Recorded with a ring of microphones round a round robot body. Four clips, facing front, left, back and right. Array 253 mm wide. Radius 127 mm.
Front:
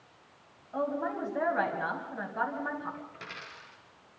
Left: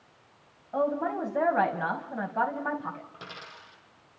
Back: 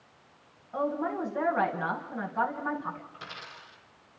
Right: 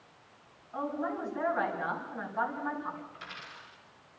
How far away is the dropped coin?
About 5 m.